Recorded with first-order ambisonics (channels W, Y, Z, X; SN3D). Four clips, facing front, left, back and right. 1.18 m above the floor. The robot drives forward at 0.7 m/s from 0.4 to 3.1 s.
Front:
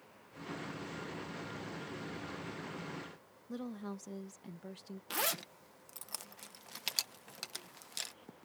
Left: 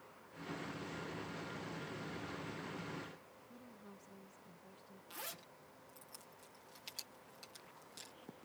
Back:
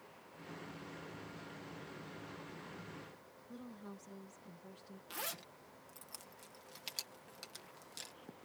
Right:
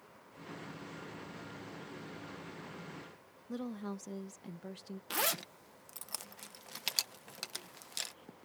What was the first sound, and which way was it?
A woman speaking, 60° right.